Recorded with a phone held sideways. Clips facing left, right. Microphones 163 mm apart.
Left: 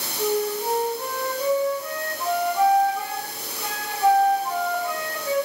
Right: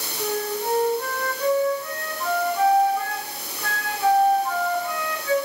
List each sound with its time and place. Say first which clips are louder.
0.2 s a flute: left 3 dB; 25° left (ahead or behind), 6 m